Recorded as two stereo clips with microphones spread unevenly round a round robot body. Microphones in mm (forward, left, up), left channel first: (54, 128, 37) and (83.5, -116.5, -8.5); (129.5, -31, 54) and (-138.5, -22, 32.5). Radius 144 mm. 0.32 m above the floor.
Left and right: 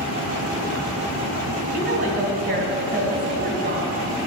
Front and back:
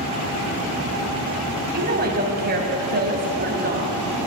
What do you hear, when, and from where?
1.7 s a woman speaking: 135° right, 2.5 m